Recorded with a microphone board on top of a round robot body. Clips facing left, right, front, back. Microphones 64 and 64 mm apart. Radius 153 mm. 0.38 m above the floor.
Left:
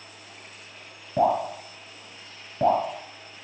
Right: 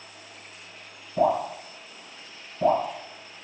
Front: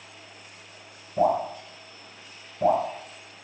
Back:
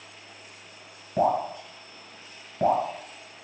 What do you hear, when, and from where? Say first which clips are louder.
1.2 s dripping: left 1 dB, front 1 dB; 125° left, 1.9 m